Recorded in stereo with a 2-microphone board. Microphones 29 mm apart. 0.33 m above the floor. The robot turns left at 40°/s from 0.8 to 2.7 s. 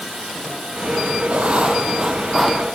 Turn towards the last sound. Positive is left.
turn(degrees=175)